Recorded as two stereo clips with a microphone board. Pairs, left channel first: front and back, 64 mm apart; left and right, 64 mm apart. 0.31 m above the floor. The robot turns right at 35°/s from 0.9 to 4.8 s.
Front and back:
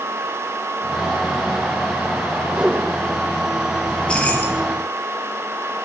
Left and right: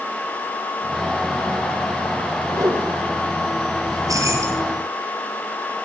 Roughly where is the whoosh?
Right.